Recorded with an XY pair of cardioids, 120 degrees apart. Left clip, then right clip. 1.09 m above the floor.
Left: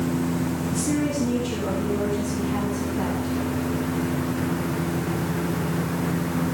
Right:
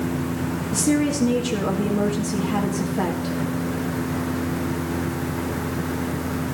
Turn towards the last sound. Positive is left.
turn(degrees=-35)